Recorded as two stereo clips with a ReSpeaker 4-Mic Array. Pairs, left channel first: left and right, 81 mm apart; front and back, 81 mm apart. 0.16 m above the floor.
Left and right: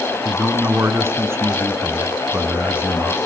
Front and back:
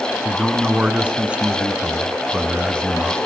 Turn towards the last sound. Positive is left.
turn(degrees=-115)